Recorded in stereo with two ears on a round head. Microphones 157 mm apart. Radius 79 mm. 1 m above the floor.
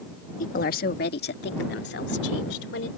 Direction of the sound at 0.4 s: 50° left (ahead or behind).